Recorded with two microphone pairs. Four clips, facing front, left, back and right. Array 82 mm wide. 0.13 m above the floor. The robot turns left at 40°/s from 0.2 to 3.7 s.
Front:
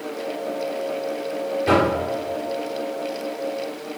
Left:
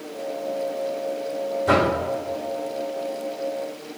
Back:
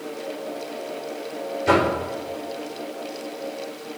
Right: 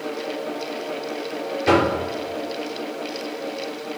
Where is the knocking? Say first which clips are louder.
Right 2 dB, even; 80° right, 3 m; by 1.9 s 90° right, 3 m.